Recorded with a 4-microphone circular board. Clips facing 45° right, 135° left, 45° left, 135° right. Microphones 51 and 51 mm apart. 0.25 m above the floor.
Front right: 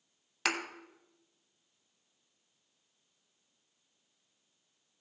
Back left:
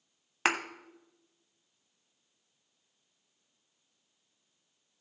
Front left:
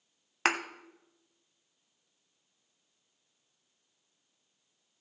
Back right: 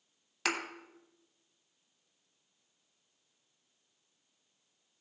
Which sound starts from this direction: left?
A thud, at 0.5 s.